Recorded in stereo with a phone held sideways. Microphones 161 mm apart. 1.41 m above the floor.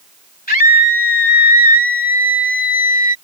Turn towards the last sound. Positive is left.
turn(degrees=55)  # may be behind; listen again after turning